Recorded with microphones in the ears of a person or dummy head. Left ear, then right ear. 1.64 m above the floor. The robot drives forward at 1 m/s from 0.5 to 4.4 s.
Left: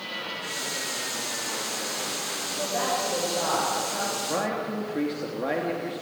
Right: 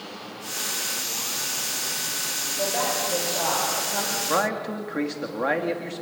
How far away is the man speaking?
About 2.5 m.